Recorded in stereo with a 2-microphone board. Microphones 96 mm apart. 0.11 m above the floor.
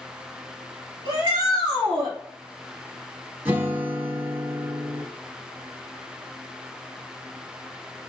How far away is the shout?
About 2.0 m.